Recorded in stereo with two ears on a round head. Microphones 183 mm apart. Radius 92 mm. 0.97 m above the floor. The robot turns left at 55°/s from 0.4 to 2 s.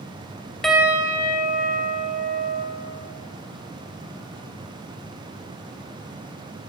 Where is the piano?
Straight ahead, 0.9 m; by 2.6 s 75° right, 0.9 m.